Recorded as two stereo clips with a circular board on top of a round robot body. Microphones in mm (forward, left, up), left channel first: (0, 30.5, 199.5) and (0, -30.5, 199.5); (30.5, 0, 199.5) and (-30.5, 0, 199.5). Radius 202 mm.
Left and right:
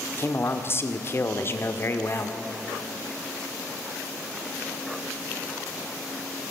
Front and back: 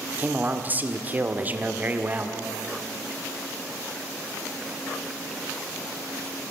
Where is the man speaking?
125° left, 2 m.